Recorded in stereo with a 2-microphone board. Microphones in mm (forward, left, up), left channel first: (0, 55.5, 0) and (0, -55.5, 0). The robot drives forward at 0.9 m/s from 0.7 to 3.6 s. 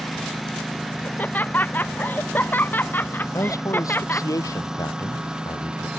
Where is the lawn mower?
Centre (ahead or behind); by 6.0 s 5° right (ahead or behind).